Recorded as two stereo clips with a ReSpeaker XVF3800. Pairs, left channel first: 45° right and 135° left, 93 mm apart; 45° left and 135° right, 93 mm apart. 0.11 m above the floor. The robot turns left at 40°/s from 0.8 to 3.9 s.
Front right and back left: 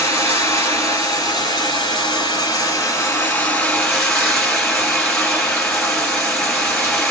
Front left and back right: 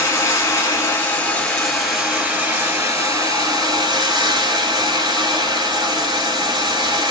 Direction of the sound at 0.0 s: 5° right.